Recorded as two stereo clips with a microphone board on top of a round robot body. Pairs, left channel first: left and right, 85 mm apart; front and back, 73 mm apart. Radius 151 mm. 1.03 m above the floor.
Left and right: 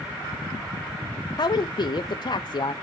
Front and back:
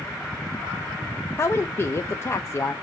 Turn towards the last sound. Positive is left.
turn(degrees=55)